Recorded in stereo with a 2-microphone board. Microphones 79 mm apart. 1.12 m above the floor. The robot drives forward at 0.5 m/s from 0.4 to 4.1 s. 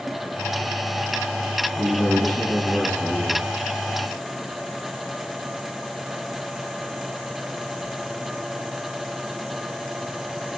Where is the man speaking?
25° left (ahead or behind), 4.5 m.